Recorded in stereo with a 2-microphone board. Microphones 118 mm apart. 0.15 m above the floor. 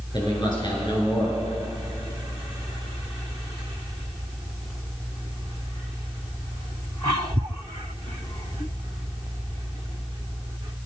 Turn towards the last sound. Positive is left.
turn(degrees=45)  # may be behind; listen again after turning